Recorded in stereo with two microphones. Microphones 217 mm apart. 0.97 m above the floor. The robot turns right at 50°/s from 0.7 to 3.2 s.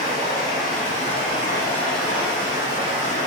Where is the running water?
115° left, 1.2 m; by 3.3 s 120° right, 1.2 m.